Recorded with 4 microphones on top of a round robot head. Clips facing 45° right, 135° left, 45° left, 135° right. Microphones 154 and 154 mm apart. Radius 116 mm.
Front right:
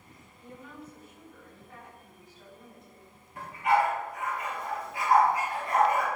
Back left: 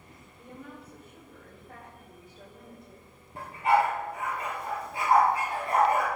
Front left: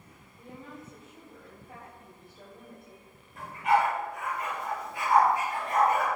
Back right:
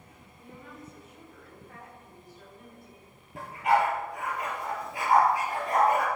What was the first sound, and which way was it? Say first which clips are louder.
A woman speaking: back left 1 dB, front left 2 dB; 105° left.